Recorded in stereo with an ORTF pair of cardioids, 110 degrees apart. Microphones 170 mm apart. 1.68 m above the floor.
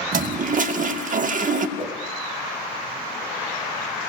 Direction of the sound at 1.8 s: 30° right.